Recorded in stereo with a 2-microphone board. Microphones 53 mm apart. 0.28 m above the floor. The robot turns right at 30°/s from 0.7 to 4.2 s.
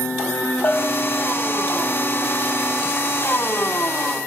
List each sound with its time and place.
0.6 s a bell: 60° left (ahead or behind), 4.5 m; by 1.3 s 75° left (ahead or behind), 4.5 m